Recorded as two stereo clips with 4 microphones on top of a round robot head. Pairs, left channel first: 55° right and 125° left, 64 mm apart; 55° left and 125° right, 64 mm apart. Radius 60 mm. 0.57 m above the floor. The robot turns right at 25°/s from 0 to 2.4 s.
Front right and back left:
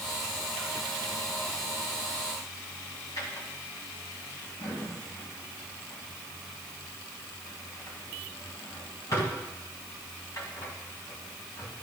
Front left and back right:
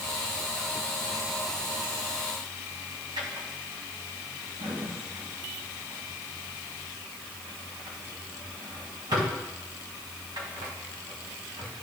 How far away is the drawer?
About 2.0 m.